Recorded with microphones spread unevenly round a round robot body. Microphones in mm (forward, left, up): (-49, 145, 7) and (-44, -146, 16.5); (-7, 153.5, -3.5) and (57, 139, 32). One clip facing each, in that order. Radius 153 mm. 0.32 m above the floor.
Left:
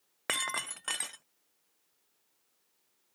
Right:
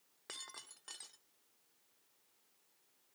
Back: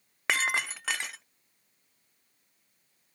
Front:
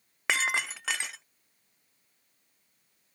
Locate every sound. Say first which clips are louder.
0.3 s breaking glass: left 17 dB, even; 80° left